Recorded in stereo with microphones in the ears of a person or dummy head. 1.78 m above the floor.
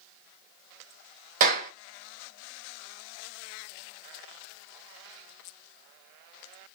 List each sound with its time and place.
1.4 s a clap: 50° right (ahead or behind), 1.2 m